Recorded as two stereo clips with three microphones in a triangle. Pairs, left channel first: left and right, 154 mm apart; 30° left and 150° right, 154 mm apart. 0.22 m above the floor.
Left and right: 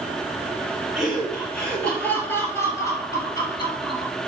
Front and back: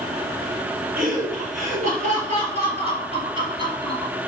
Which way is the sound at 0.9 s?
Straight behind.